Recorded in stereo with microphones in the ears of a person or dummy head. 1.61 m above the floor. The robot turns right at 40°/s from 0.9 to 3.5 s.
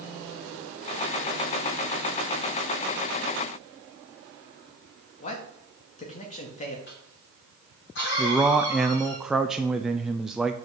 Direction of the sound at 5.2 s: 40° left (ahead or behind).